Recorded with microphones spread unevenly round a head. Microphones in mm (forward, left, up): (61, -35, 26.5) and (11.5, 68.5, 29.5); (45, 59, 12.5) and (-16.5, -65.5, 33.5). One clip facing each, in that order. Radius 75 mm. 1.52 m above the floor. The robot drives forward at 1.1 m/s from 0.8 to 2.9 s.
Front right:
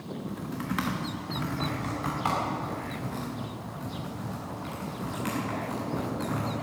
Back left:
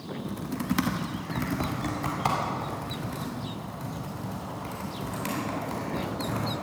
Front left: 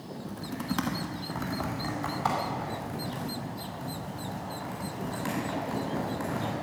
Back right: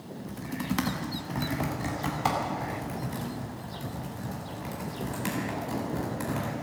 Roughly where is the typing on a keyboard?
Behind.